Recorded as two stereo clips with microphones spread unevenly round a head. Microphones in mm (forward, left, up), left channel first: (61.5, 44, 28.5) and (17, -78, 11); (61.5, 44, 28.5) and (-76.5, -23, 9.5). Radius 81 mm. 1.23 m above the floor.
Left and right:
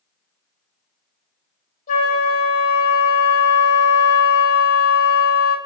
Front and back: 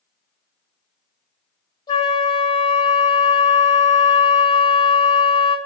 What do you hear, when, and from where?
1.9 s a flute: 90° left, 1.2 m